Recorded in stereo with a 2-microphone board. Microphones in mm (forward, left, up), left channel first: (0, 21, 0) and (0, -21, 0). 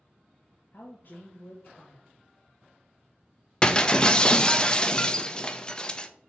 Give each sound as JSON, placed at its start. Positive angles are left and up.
{"t": 0.7, "sound": "a woman speaking", "side_deg": 50, "distance_m": 1.1}
{"t": 3.6, "sound": "breaking glass", "side_deg": 20, "distance_m": 0.6}